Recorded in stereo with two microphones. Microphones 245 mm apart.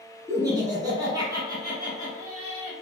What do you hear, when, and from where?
0.3 s laughter: 10° right (ahead or behind), 1.3 m; by 2.7 s 15° right (ahead or behind), 1.7 m